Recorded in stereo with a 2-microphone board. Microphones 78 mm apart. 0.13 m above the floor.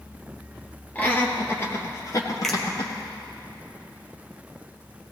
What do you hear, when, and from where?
0.9 s laughter: 20° left (ahead or behind), 3 m; by 2.9 s 55° left (ahead or behind), 4 m
2.4 s a finger snap: 5° left (ahead or behind), 2.5 m